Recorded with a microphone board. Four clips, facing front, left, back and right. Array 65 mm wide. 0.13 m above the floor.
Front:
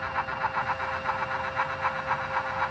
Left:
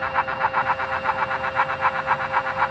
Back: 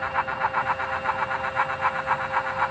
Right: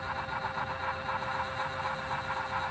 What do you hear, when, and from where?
Only background noise.